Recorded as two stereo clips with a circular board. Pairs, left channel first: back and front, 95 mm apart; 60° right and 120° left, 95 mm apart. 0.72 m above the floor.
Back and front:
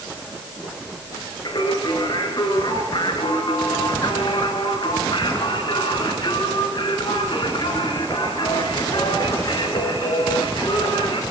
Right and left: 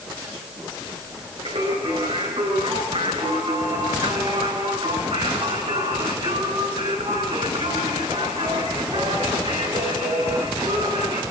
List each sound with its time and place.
1.4 s singing: 140° left, 5.5 m